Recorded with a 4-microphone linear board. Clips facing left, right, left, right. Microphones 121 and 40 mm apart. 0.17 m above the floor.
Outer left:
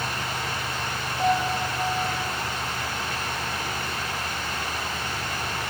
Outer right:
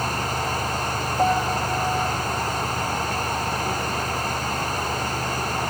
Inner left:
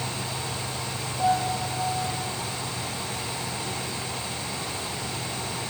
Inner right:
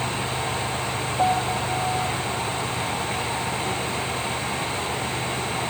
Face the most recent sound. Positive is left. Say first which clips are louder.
# outer right 2 dB, inner right 1 dB
turn(degrees=-50)  # may be behind; listen again after turning